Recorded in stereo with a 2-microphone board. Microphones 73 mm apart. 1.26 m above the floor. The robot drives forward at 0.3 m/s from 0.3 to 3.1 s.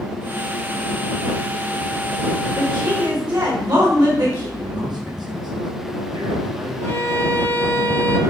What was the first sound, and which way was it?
A woman speaking, 70° right (ahead or behind).